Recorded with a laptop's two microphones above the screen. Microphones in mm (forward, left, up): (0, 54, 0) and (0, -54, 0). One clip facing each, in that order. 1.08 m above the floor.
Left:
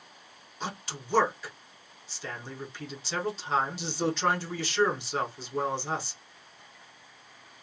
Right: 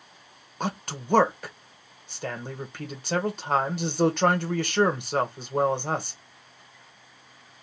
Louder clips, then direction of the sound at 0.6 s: Right 6 dB; 55° right (ahead or behind).